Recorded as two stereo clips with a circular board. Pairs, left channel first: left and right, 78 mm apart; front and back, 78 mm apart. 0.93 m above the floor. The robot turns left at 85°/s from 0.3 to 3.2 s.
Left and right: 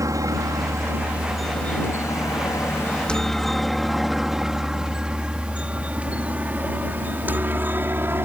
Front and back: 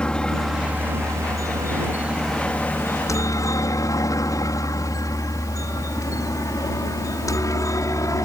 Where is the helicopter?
75° right; by 8.2 s 35° right.